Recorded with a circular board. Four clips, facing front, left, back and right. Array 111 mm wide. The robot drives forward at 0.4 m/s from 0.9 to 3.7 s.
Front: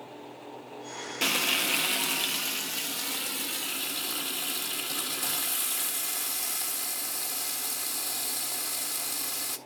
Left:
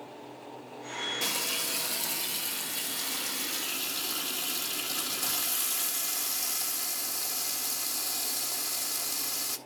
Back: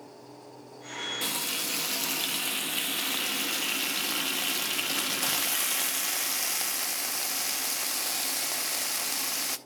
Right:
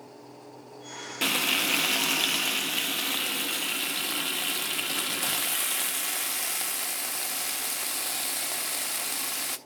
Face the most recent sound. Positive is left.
turn(degrees=-140)